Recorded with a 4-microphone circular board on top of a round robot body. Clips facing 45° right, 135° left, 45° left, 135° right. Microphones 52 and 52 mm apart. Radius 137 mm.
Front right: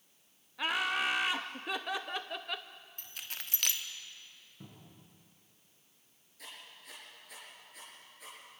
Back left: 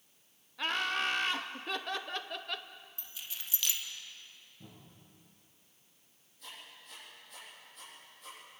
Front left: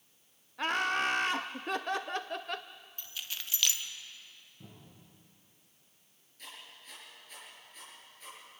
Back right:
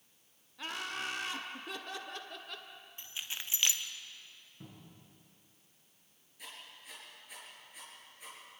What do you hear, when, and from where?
0.6 s laughter: 35° left, 0.8 m
3.0 s keys jangling: 70° right, 1.3 m
4.6 s a cupboard door: 75° right, 8 m
6.4 s writing: 55° right, 6 m